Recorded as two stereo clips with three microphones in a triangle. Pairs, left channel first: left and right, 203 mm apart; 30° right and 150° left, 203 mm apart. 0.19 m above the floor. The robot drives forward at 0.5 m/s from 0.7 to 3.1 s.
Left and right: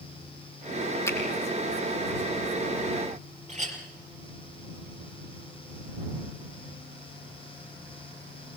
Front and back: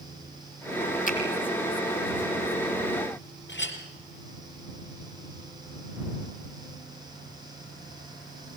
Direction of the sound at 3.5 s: 40° right.